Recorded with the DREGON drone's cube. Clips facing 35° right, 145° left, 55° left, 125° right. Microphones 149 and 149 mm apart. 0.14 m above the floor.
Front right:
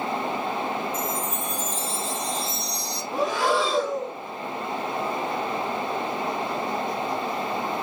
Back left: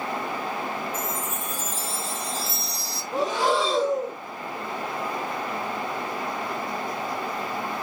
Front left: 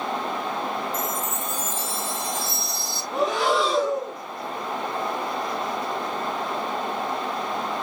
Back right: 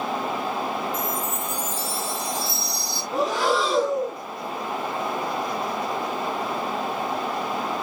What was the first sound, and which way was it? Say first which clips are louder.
A chime: front right 2 dB, back right 1 dB; 75° left.